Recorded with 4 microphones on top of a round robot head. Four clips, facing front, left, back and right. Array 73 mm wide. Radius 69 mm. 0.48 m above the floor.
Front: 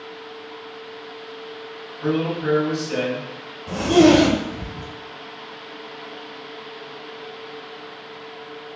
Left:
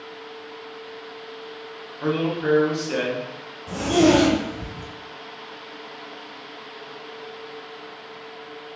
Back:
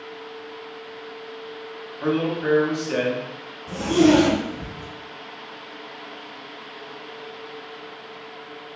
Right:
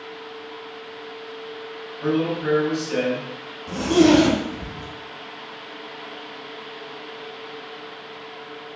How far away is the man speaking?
About 1.2 m.